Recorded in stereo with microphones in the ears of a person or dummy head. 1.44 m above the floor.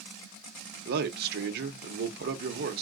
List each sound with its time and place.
0.8 s a man speaking: 55° right (ahead or behind), 0.9 m